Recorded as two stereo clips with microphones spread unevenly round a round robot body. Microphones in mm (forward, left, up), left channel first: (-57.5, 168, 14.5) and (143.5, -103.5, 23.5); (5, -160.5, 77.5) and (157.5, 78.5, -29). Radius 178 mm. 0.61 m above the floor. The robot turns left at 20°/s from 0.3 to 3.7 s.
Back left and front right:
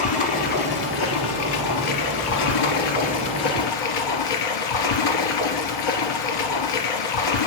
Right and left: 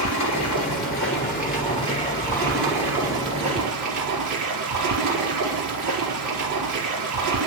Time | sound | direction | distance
0.0 | running water | 160° right | 2.5 m